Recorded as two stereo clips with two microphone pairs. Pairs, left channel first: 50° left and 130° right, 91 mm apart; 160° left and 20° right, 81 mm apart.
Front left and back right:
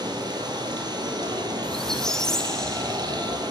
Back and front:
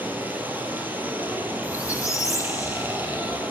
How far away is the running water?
About 1.3 m.